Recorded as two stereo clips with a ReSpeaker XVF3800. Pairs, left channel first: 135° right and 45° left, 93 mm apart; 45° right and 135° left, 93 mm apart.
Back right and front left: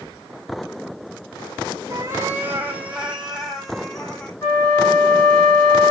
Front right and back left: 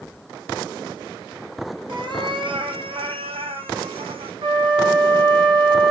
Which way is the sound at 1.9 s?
100° left.